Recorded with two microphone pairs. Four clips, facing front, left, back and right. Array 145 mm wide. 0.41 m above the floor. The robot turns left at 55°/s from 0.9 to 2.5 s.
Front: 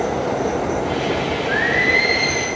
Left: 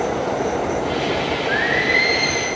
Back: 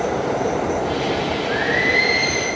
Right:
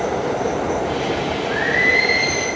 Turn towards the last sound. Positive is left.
turn(degrees=-20)